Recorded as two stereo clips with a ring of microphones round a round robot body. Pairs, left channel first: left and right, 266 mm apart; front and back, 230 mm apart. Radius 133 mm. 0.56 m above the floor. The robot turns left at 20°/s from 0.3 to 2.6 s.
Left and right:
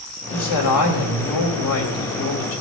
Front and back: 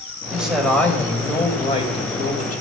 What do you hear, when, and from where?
0.3 s a man speaking: 95° left, 3 m; by 2.6 s 50° left, 3 m